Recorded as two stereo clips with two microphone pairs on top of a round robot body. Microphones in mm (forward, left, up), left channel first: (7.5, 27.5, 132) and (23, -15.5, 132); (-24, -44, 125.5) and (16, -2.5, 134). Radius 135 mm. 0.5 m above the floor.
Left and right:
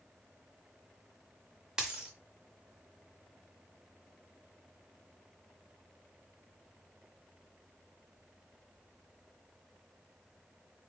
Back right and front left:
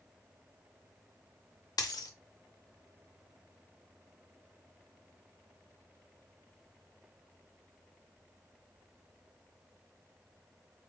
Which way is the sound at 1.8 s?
145° right.